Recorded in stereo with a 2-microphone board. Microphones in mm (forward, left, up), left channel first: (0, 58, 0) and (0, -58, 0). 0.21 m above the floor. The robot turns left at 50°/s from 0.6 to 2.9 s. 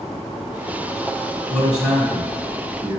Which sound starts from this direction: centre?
A man speaking, at 1.5 s.